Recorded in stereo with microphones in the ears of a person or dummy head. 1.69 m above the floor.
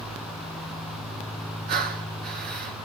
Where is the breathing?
50° right (ahead or behind), 1.0 m.